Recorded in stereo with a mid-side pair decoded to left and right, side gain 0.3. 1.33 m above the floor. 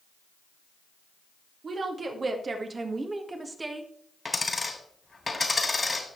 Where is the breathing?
I don't hear breathing.